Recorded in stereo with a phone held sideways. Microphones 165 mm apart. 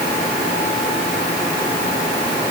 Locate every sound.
Only background noise.